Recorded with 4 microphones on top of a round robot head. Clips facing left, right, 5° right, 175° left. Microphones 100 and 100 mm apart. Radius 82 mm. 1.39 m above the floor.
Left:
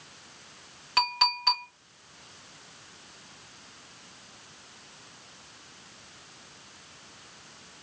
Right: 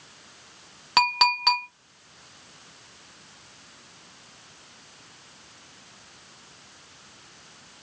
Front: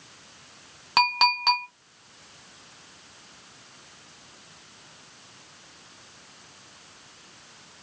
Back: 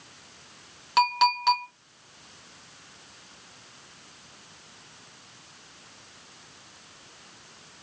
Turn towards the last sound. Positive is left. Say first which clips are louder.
# right 5 dB, back 1 dB
turn(degrees=-65)